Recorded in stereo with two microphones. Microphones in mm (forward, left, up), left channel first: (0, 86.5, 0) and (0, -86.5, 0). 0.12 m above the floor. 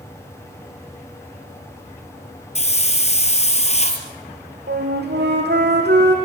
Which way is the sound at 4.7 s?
80° right.